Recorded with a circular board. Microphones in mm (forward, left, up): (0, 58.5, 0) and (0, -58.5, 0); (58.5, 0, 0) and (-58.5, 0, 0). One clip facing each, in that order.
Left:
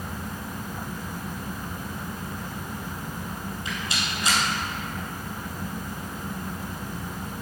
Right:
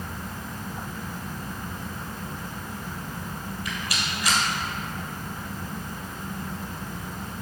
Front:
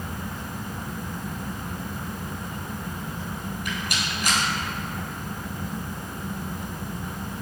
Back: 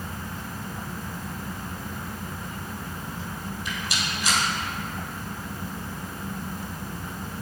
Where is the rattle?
30° left, 3 m.